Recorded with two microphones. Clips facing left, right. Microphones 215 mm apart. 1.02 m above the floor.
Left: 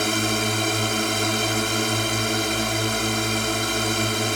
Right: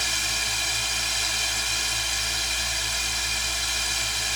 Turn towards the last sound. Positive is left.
turn(degrees=65)  # may be behind; listen again after turning